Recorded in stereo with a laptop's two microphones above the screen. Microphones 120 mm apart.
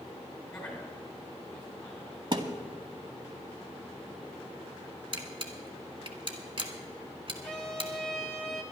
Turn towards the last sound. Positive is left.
turn(degrees=5)  # may be behind; listen again after turning